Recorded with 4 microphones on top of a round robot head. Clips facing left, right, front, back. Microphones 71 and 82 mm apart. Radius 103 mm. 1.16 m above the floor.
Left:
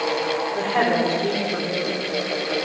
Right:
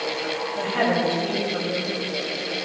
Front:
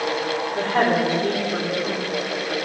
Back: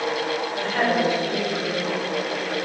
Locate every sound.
0.6 s a woman speaking: 50° left, 5 m